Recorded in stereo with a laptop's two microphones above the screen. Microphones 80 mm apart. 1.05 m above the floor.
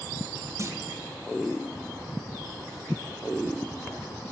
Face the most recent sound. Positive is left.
turn(degrees=-40)  # may be behind; listen again after turning